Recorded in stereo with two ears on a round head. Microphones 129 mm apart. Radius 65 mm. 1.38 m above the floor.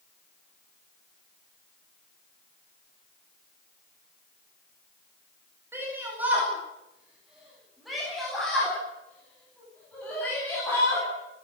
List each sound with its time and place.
5.7 s a shout: 15° right (ahead or behind), 9 m; by 11.1 s 15° left (ahead or behind), 13 m